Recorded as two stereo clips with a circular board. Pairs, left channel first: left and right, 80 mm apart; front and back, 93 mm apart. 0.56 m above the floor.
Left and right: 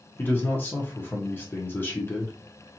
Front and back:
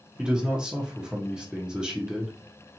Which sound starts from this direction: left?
A man speaking, at 0.2 s.